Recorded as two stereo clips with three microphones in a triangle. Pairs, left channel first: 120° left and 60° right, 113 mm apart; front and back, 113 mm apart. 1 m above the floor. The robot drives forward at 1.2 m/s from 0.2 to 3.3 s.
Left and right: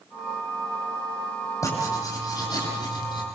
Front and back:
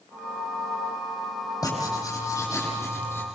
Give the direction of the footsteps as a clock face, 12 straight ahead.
I don't hear footsteps.